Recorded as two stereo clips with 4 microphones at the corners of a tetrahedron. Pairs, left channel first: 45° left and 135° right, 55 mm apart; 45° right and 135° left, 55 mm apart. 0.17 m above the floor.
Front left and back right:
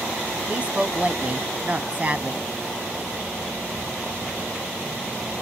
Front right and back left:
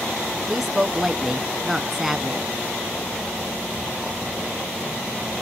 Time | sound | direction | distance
0.5 | a woman speaking | 145° right | 1.1 m